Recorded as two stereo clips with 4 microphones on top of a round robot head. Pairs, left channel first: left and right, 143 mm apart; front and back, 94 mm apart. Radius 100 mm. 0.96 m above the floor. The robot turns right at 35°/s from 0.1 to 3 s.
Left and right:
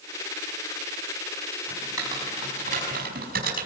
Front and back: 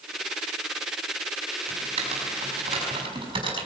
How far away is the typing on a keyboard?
About 5.5 m.